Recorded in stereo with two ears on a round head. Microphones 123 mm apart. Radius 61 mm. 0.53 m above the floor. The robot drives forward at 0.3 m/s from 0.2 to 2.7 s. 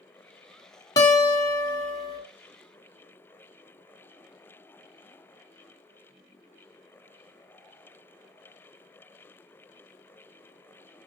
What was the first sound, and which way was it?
A guitar, 30° left (ahead or behind).